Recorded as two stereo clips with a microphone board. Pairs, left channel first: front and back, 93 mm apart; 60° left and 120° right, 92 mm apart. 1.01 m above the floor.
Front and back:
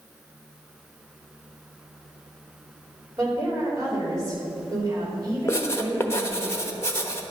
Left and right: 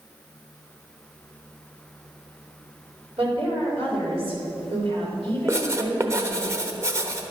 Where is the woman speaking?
130° right, 4 m.